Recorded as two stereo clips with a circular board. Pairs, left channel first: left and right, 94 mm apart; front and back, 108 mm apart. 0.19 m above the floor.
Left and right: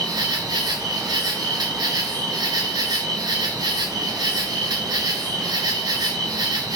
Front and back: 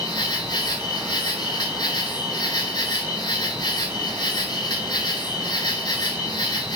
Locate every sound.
0.0 s an insect: 50° right, 1.2 m